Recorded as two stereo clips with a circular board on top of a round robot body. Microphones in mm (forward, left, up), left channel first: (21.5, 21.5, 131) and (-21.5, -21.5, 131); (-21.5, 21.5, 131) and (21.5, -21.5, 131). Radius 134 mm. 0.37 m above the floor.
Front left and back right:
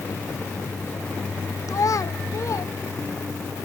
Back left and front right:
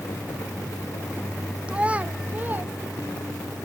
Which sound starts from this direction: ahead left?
A child speaking, at 1.7 s.